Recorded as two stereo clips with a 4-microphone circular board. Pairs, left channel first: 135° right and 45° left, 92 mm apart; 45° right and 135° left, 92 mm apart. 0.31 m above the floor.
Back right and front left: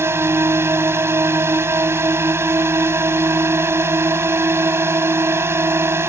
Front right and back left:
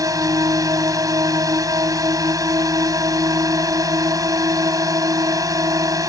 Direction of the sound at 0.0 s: 100° left.